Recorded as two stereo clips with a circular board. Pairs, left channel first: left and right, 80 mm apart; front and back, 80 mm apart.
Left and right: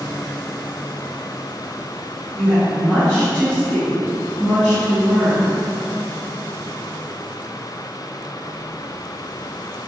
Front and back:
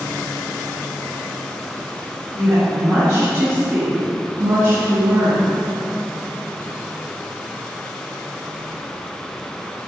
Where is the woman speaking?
165° left, 1.2 m.